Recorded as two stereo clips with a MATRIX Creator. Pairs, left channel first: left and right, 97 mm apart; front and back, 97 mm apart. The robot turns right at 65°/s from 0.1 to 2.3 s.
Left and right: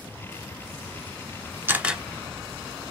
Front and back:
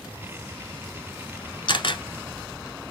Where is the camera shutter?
25° right, 1.1 m; by 2.0 s straight ahead, 1.1 m.